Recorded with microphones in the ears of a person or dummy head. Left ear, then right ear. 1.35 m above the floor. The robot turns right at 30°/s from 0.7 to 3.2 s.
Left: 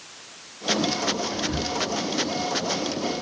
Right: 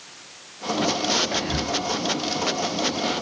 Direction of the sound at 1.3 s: 40° right (ahead or behind).